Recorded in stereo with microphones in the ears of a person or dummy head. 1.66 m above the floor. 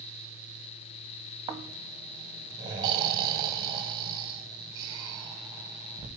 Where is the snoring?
25° right (ahead or behind), 0.9 m.